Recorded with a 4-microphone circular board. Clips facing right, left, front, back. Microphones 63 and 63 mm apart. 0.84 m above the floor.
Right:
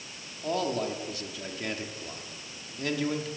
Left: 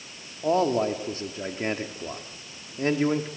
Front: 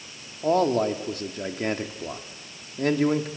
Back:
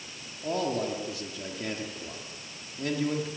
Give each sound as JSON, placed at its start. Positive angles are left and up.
{"t": 0.4, "sound": "a man speaking", "azimuth_deg": 35, "distance_m": 1.9}